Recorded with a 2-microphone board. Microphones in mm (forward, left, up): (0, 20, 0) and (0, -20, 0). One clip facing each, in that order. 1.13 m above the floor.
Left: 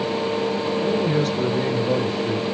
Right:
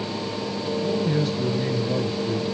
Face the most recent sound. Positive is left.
turn(degrees=80)